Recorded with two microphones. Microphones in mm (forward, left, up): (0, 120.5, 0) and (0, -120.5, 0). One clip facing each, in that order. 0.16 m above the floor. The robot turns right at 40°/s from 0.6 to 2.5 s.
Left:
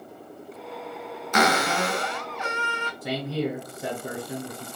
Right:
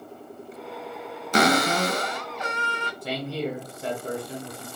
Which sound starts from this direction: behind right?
A cupboard door, at 1.3 s.